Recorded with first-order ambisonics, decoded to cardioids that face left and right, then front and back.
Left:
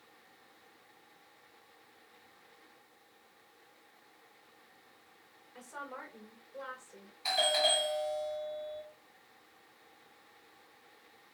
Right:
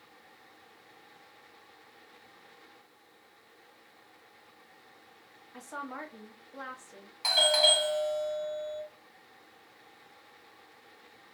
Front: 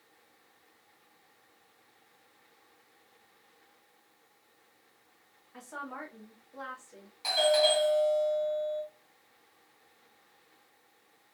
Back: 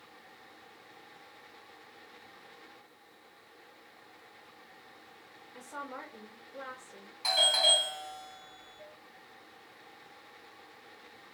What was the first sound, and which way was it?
A woman speaking, 75° right.